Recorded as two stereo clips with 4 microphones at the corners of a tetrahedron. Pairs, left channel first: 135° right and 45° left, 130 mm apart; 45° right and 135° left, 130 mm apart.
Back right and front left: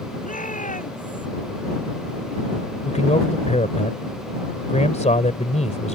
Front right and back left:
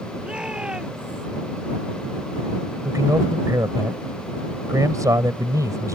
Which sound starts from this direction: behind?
A man speaking, at 2.9 s.